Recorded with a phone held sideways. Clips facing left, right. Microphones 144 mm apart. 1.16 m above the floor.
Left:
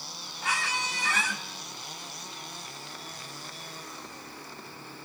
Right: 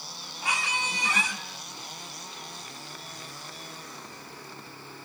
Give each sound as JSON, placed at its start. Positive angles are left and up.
{"t": 0.4, "sound": "a squeak", "side_deg": -15, "distance_m": 3.0}